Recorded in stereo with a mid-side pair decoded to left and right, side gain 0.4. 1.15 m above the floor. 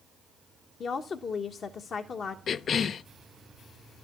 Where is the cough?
60° left, 0.5 m.